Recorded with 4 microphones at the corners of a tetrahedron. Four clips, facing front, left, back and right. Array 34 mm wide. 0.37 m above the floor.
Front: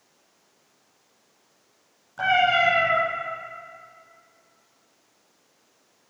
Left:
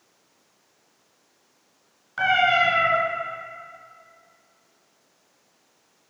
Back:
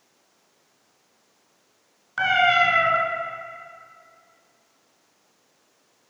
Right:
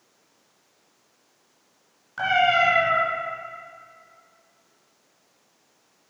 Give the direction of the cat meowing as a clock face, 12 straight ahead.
6 o'clock.